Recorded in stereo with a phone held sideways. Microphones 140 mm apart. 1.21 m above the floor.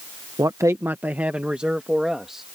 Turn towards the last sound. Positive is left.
turn(degrees=0)  # may be behind; listen again after turning